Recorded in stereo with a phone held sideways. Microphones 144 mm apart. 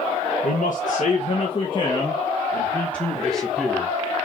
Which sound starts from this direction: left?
A man speaking, at 0.4 s.